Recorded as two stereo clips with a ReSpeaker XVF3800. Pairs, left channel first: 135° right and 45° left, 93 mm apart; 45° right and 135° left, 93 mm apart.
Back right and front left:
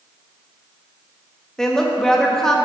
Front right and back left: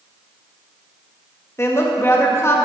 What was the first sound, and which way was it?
A woman speaking, 55° right.